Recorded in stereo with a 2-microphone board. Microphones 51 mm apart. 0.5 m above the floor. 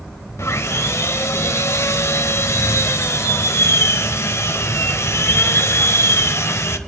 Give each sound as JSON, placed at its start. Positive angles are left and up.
{"t": 0.4, "sound": "sawing", "side_deg": 65, "distance_m": 1.1}